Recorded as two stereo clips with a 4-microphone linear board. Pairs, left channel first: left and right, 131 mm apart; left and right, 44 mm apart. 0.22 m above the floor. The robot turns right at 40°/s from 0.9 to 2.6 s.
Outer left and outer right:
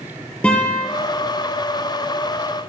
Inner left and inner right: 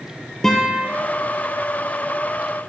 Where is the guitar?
10° left (ahead or behind), 2.5 m.